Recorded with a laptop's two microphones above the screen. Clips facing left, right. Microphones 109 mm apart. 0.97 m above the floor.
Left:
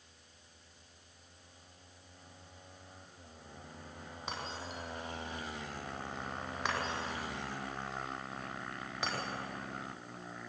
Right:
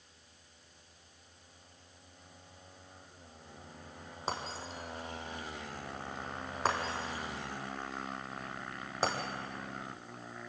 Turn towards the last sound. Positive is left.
turn(degrees=-35)  # may be behind; listen again after turning